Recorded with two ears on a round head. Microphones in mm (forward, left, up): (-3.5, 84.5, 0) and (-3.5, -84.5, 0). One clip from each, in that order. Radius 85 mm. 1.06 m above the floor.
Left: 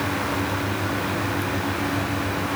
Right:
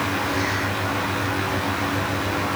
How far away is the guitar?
I don't hear a guitar.